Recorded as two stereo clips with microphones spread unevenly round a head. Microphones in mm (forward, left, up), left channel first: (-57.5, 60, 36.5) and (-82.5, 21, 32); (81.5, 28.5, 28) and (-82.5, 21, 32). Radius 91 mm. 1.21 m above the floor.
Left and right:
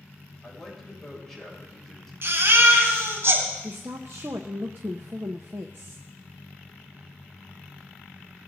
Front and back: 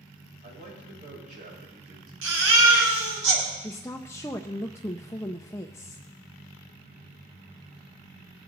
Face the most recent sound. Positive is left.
turn(degrees=-70)